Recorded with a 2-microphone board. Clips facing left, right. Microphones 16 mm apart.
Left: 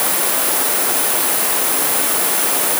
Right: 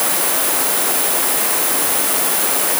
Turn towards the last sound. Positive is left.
No sound to turn to.